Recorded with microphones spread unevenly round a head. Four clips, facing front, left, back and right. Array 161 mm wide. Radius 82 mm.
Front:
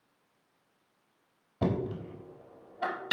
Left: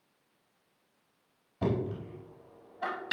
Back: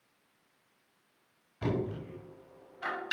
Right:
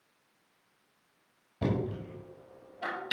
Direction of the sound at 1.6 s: Straight ahead.